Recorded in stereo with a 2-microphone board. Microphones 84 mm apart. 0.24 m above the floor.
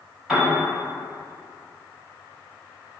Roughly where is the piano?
Centre.